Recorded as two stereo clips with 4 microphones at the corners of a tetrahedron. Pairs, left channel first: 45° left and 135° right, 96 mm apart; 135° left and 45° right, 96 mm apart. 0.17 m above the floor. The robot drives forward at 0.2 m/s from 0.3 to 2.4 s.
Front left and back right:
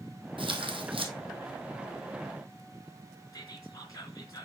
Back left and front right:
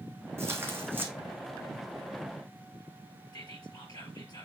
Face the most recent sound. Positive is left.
turn(degrees=95)